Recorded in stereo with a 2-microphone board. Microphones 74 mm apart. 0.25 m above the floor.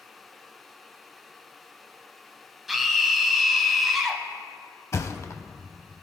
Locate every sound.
2.7 s a scream: 5° right (ahead or behind), 1.2 m
4.9 s a thud: 45° left (ahead or behind), 0.7 m